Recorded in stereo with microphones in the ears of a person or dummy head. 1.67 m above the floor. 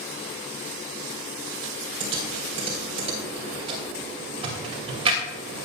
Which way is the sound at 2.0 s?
40° right (ahead or behind).